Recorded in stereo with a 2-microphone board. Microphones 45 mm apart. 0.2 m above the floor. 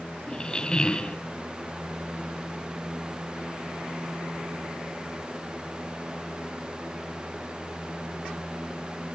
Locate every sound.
0.3 s a squeak: 20° left (ahead or behind), 0.9 m